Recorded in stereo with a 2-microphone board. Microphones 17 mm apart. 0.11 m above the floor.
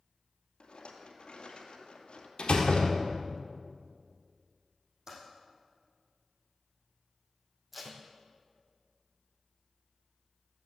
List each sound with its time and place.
0.6 s a rattle: 65° left (ahead or behind), 1.9 m
2.4 s a door slam: 60° left (ahead or behind), 2 m
5.1 s typing on a keyboard: 25° right (ahead or behind), 5.5 m
7.7 s tape being pulled: 5° right (ahead or behind), 2 m